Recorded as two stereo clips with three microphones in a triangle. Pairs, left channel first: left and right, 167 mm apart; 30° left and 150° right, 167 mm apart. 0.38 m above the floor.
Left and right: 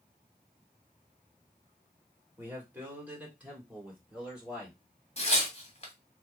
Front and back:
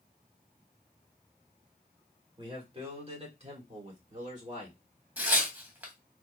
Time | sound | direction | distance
2.4 | a man speaking | 155° right | 1.4 m
5.2 | tearing paper | 135° left | 1.3 m